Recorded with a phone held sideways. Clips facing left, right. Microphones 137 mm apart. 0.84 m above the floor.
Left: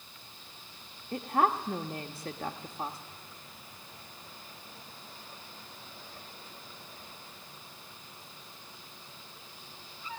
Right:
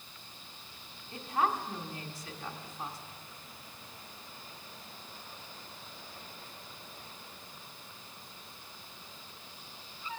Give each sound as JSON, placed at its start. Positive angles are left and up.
{"t": 1.1, "sound": "a woman speaking", "side_deg": 60, "distance_m": 1.2}